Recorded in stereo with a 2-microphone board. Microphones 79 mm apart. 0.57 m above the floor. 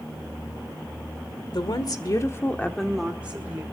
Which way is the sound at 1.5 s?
65° left (ahead or behind).